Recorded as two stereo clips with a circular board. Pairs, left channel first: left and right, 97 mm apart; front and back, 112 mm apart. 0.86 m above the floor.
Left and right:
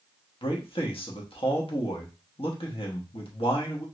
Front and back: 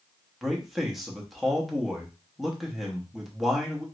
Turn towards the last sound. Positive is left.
turn(degrees=90)